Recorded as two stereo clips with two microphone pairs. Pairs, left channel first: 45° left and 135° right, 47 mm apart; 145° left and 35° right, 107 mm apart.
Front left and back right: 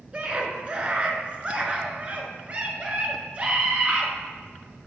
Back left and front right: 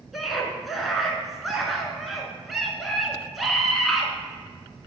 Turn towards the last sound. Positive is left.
turn(degrees=-125)